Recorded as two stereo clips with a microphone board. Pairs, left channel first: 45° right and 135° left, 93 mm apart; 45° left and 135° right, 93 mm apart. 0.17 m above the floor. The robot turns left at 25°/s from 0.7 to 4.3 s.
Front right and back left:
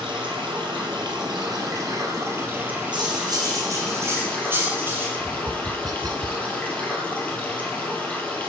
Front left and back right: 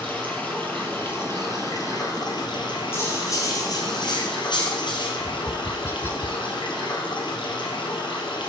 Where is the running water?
115° left, 2.5 m; by 8.5 s 25° left, 2.5 m.